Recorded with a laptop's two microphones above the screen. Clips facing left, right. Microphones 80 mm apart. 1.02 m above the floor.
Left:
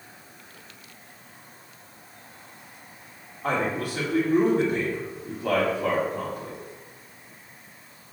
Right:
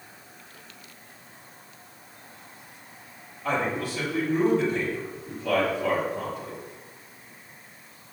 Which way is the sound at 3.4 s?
55° left (ahead or behind).